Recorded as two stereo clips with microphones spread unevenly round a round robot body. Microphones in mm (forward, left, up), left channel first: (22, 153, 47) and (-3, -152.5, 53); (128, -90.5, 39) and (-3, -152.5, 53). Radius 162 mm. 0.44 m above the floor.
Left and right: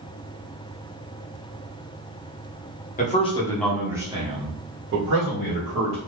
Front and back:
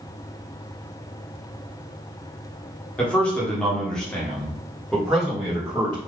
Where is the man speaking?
85° left, 1.1 m; by 6.0 s 65° right, 1.8 m.